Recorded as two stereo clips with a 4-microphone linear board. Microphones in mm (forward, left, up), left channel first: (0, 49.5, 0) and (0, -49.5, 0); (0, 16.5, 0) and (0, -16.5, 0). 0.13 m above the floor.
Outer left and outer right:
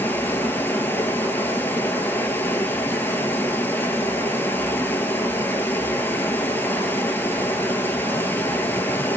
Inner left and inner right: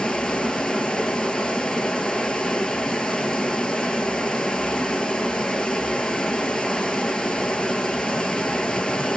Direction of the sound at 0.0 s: 20° left (ahead or behind).